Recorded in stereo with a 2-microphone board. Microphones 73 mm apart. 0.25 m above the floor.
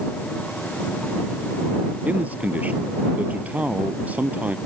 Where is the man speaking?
20° right (ahead or behind).